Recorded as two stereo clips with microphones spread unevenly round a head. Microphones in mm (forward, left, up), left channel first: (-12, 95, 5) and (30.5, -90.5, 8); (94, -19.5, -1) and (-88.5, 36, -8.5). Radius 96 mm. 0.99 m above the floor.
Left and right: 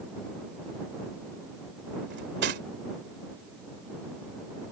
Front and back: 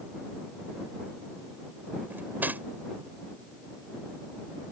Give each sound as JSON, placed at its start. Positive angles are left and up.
{"t": 2.1, "sound": "cutlery clinking", "azimuth_deg": -115}